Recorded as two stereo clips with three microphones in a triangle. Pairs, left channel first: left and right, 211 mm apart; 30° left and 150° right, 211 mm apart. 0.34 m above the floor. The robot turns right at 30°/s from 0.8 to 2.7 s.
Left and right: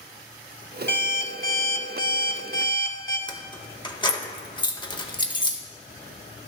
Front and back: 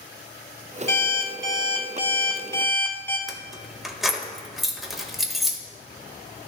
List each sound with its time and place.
0.9 s an alarm clock: 55° left, 1.1 m; by 3.2 s 110° left, 1.1 m
3.3 s keys jangling: 125° left, 0.7 m